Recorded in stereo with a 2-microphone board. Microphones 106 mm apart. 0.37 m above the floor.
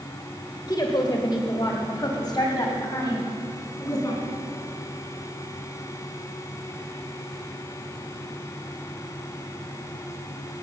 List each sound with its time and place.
0.7 s a woman speaking: 40° left (ahead or behind), 1.3 m